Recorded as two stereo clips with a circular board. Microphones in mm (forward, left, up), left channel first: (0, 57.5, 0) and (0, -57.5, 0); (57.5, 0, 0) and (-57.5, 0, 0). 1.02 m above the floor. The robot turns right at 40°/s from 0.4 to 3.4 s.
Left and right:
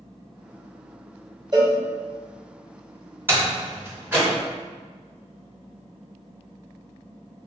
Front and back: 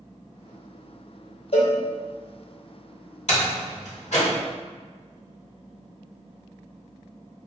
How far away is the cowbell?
About 1.0 m.